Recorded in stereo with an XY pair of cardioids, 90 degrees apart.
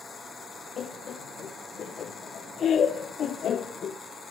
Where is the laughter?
65° left, 0.6 m.